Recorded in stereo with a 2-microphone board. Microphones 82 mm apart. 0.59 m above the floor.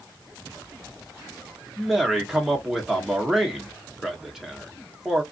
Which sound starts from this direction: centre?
A man speaking, at 1.8 s.